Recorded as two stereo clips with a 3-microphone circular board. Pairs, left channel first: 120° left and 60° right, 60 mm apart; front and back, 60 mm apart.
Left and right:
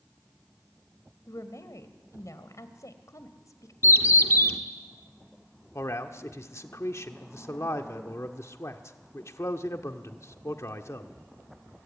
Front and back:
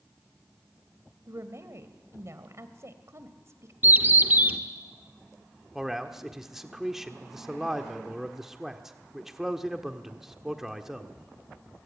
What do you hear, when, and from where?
1.3 s a woman speaking: 145° left, 2.5 m
3.8 s a bird: 135° left, 1.4 m
5.8 s a man speaking: 95° left, 1.5 m